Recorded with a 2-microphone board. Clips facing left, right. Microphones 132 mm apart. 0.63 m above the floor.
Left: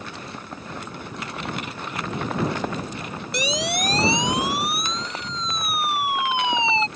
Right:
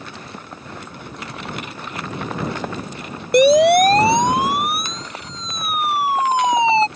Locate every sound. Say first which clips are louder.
3.3 s a siren: right 16 dB; 55° right (ahead or behind); by 6.9 s 35° right (ahead or behind)